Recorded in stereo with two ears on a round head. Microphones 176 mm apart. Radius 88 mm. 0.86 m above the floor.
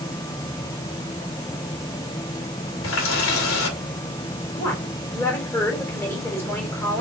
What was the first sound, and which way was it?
A running tap, 75° left (ahead or behind).